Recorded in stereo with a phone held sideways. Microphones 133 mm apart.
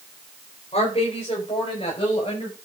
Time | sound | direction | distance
0.7 | a woman speaking | 45° left (ahead or behind) | 4.5 m